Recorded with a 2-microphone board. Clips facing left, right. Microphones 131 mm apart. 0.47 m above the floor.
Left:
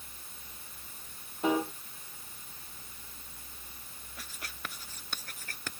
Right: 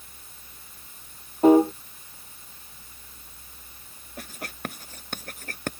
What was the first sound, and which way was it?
A piano, 45° right (ahead or behind).